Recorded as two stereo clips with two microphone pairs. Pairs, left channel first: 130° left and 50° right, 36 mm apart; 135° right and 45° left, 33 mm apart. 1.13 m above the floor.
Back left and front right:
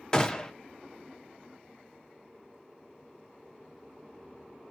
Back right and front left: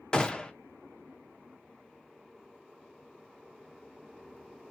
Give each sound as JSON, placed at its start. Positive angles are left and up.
{"t": 0.1, "sound": "a gunshot", "azimuth_deg": 180, "distance_m": 0.6}